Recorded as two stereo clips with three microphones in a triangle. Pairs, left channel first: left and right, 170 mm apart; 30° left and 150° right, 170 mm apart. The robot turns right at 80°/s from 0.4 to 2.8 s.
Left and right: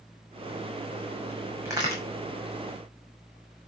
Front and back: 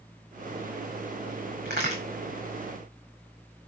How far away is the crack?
About 5 m.